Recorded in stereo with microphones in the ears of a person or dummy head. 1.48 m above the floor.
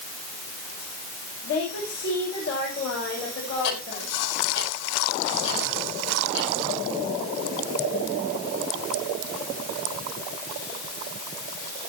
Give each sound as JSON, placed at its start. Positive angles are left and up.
{"t": 1.4, "sound": "a woman speaking", "side_deg": 60, "distance_m": 6.0}
{"t": 3.6, "sound": "ticking", "side_deg": 70, "distance_m": 6.0}